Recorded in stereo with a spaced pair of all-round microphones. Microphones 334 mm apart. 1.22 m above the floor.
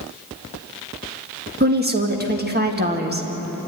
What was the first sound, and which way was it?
A woman speaking, 30° right (ahead or behind).